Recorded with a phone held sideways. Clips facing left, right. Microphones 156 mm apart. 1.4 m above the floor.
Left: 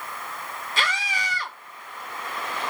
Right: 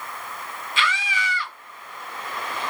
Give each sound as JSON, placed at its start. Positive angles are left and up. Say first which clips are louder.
{"t": 0.8, "sound": "a scream", "louder": "right 3 dB", "side_deg": 35, "distance_m": 2.5}